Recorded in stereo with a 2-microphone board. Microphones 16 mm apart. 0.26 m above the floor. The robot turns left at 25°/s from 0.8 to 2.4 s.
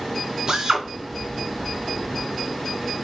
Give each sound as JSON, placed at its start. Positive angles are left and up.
{"t": 0.5, "sound": "a drill", "side_deg": -55, "distance_m": 1.8}